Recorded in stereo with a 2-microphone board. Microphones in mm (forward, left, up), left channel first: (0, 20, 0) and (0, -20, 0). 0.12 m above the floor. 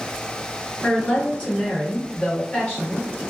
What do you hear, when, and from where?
0.8 s a woman speaking: 35° left (ahead or behind), 1.8 m